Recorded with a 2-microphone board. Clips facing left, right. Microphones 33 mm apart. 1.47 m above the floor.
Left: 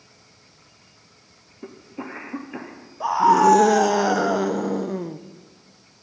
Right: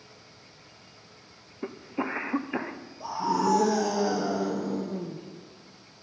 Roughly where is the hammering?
No hammering in this recording.